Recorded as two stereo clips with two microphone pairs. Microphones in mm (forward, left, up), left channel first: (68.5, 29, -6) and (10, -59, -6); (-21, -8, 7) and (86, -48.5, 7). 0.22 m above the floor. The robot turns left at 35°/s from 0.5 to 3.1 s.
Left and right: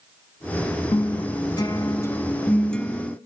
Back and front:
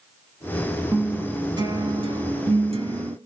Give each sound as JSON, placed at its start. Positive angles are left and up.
{"t": 0.9, "sound": "a guitar", "azimuth_deg": 40, "distance_m": 0.7}